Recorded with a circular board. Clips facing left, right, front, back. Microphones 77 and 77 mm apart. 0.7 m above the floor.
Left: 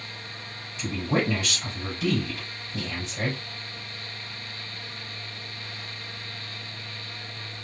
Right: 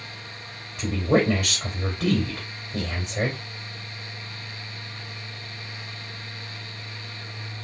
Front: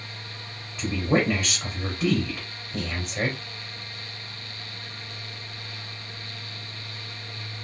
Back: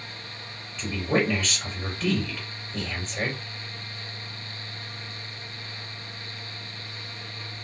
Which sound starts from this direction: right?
A woman speaking, at 0.8 s.